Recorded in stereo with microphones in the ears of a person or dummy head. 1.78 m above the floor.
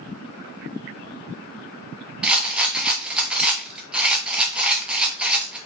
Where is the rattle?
5° right (ahead or behind), 0.6 m.